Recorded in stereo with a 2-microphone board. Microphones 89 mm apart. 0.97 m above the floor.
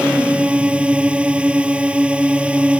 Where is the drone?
15° right (ahead or behind).